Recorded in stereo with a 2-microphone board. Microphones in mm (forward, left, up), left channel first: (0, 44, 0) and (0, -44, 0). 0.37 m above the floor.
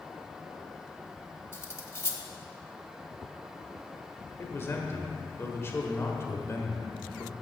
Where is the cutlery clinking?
30° left (ahead or behind), 0.8 m.